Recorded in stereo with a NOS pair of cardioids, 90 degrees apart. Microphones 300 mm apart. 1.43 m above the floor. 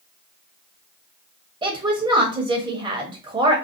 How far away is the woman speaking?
About 1.0 m.